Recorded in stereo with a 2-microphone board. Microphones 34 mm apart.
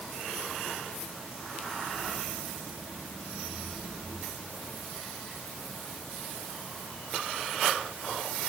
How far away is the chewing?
I don't hear chewing.